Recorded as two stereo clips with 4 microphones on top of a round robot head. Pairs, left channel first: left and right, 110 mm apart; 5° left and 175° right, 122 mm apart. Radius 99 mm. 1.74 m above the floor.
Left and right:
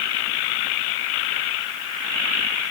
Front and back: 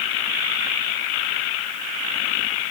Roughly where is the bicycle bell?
I don't hear a bicycle bell.